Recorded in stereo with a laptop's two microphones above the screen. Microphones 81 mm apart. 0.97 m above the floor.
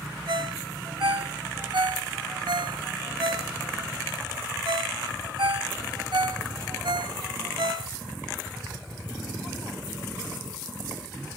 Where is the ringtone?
75° right (ahead or behind), 1.2 m.